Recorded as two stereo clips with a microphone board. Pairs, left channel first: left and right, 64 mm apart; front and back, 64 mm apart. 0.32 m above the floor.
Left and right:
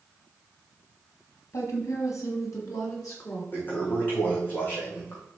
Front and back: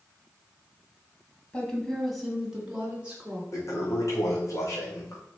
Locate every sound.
1.5 s a woman speaking: 70° left, 2.5 m; by 3.4 s 120° left, 4 m
3.5 s a toilet flushing: 30° left, 3.5 m